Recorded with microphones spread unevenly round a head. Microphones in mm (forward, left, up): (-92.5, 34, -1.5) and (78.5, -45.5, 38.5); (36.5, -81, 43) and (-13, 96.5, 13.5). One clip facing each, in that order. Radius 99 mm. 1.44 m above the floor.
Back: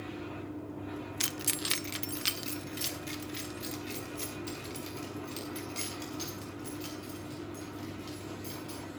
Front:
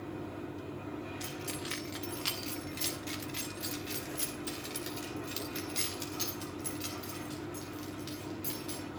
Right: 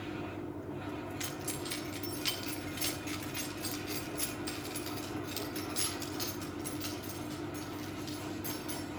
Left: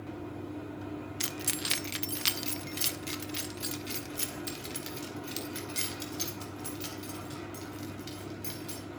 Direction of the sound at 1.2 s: 150° left.